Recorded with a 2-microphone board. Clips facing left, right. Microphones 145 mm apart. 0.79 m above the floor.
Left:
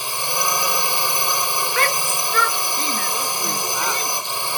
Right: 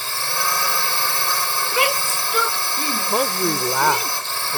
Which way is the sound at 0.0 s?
15° left (ahead or behind).